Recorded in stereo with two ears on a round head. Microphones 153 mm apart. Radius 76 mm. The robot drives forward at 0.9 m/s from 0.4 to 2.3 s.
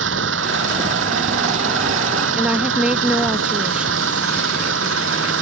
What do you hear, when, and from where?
0.0 s an engine running: 80° right; by 5.4 s 85° right
2.4 s a woman speaking: 5° right (ahead or behind)